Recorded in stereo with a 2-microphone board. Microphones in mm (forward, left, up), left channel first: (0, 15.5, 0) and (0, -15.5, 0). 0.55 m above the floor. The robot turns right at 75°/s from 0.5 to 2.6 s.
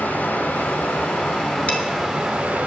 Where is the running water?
65° left, 3.5 m; by 2.7 s 140° right, 3.5 m.